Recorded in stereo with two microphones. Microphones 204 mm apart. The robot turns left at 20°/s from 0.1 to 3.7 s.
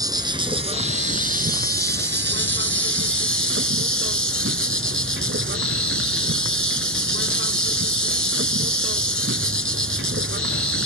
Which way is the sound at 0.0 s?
20° right.